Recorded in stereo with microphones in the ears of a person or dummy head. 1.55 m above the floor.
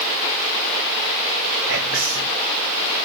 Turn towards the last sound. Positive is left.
turn(degrees=-60)  # may be behind; listen again after turning